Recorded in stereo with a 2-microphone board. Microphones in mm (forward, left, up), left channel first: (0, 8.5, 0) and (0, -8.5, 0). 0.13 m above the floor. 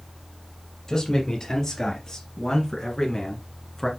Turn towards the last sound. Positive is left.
turn(degrees=30)  # may be behind; listen again after turning